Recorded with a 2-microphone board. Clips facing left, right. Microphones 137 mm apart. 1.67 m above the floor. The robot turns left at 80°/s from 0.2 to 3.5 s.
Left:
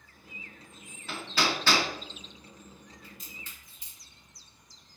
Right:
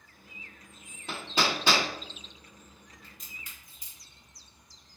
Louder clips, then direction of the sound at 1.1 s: Right 1 dB; 20° right (ahead or behind).